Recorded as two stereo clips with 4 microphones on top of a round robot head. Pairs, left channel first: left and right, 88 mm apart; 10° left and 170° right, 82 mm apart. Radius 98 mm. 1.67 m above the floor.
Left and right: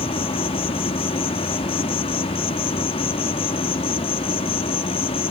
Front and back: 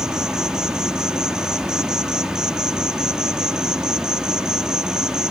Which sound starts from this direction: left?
An insect, at 0.0 s.